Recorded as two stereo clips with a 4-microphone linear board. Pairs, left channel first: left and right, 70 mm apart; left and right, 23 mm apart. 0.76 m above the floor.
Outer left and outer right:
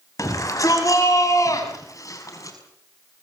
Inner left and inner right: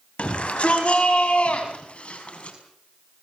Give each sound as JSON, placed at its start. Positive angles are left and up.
{"t": 0.2, "sound": "a shout", "side_deg": 55, "distance_m": 5.0}